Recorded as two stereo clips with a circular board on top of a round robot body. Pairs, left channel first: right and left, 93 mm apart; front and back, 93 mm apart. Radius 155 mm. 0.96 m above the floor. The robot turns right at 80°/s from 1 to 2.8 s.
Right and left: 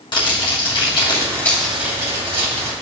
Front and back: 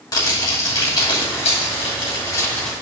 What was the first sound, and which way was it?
Crumpling, 50° right.